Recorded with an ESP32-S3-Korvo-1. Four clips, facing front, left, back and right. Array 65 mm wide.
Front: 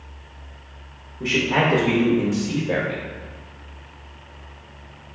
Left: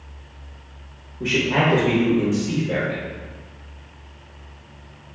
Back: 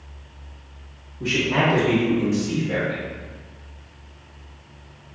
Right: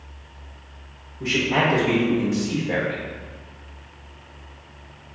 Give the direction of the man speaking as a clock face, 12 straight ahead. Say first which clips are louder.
Left 1 dB, front 1 dB; 11 o'clock.